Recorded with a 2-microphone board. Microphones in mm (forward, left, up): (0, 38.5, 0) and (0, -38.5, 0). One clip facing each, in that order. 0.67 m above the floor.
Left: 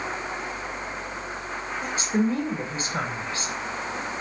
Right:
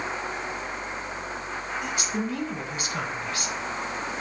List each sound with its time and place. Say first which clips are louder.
1.8 s a woman speaking: left 8 dB; 30° left (ahead or behind), 4 m